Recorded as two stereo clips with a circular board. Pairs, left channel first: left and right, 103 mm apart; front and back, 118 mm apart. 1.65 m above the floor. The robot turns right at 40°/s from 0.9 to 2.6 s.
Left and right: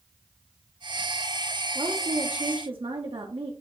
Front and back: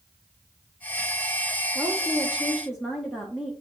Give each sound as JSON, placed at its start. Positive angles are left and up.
{"t": 1.8, "sound": "a woman speaking", "azimuth_deg": -130, "distance_m": 1.1}